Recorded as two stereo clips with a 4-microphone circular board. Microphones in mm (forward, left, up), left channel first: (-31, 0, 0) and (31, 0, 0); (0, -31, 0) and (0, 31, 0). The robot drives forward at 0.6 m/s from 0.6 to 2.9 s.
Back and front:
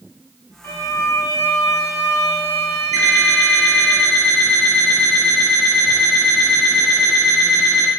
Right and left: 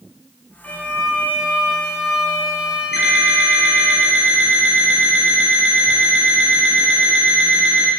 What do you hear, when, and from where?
0.6 s a violin: 155° right, 0.6 m; by 3.9 s 175° right, 1.9 m
2.9 s an alarm clock: 170° left, 1.5 m